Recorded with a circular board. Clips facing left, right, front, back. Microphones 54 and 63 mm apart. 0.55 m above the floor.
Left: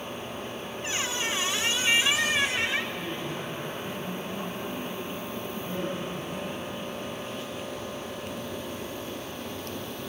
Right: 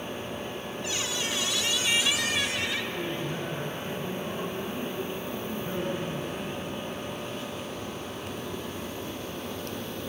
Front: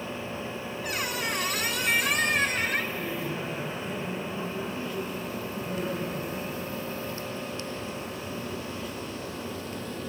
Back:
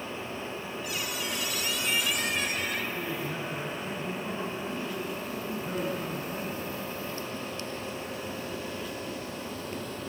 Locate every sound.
0.8 s a squeak: 35° left, 1.4 m
3.0 s a man speaking: 145° right, 7.5 m